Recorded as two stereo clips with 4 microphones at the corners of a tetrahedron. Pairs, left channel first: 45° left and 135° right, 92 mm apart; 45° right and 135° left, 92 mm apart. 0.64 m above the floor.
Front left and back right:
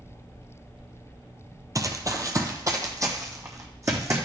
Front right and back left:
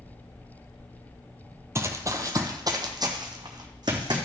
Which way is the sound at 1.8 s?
175° right.